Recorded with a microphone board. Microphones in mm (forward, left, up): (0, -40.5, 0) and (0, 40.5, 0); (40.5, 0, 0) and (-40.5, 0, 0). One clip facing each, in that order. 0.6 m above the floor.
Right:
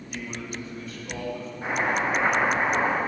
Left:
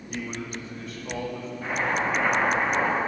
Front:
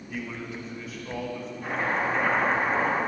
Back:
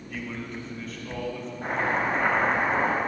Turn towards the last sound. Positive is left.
turn(degrees=-160)